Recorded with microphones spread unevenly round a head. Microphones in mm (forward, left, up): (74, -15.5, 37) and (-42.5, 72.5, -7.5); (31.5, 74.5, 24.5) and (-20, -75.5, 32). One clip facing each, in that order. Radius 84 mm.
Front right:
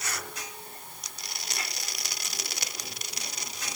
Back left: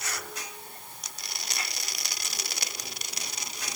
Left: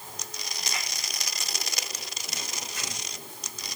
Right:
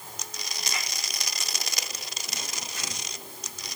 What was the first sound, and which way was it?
Only background noise.